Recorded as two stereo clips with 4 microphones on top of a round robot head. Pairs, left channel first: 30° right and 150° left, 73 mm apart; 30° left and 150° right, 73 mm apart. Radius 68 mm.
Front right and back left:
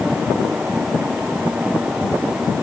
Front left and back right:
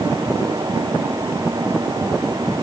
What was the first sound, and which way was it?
Only background noise.